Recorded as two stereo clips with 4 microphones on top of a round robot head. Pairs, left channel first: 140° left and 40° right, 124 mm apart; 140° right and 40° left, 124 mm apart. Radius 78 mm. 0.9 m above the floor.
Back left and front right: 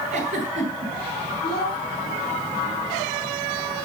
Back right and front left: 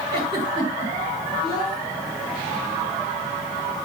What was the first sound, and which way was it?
A giggle, 10° right.